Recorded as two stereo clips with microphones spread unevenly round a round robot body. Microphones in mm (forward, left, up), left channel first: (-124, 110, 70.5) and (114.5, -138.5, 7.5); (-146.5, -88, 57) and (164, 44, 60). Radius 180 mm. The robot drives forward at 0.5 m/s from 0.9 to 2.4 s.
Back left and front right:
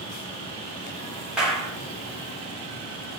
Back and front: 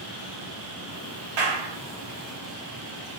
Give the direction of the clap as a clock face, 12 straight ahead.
11 o'clock.